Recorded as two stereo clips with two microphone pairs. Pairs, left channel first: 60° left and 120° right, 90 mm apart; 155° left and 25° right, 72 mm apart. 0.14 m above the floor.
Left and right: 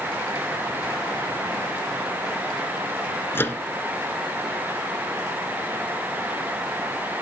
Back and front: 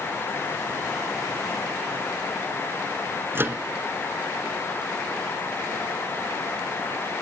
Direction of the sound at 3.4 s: 10° left.